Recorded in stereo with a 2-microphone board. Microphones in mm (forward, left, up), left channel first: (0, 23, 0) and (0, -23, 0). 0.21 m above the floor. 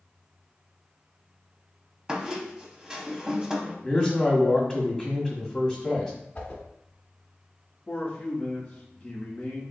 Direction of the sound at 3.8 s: 5° left (ahead or behind).